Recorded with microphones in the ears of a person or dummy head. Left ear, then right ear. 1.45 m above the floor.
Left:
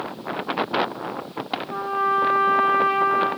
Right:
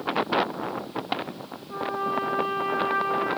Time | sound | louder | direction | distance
1.7 | a trumpet | left 5 dB | 30° left (ahead or behind) | 0.7 m